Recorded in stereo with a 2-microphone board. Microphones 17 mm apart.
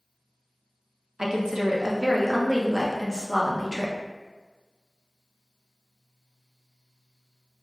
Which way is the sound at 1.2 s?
35° right (ahead or behind).